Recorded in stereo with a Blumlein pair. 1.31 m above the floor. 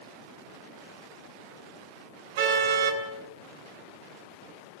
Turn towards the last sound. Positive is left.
turn(degrees=-50)